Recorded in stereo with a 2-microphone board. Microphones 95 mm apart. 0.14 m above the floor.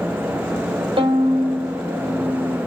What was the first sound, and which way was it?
A violin, 65° right (ahead or behind).